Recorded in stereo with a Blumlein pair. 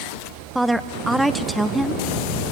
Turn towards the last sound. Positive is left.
turn(degrees=-5)